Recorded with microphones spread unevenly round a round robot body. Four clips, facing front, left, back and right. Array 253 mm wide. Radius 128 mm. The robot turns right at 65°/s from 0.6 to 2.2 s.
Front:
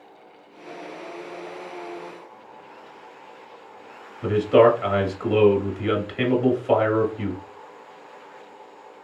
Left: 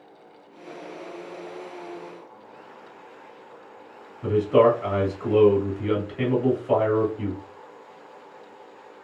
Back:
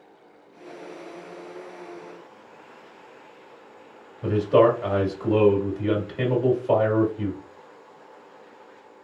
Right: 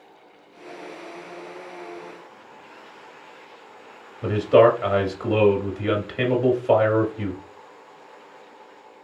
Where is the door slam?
I don't hear a door slam.